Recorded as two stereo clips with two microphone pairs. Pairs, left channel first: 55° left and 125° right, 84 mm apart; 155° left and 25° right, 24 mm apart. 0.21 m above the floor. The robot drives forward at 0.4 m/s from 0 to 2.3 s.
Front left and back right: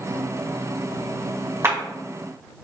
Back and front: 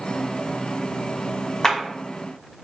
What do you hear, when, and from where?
1.6 s a clap: 165° right, 1.5 m